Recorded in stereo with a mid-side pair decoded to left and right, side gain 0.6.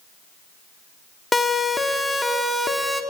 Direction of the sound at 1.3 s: 15° left.